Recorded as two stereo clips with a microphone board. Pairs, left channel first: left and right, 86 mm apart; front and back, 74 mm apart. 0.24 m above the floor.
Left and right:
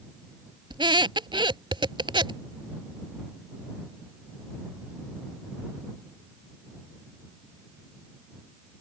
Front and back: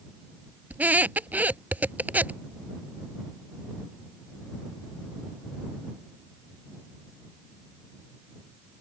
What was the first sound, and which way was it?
A squeak, 110° right.